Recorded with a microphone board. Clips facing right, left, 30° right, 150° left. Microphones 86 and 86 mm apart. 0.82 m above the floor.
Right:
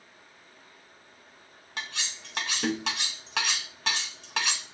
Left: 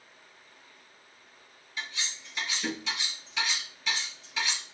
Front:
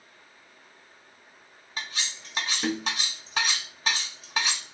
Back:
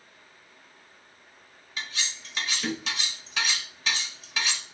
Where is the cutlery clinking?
80° right, 0.8 m.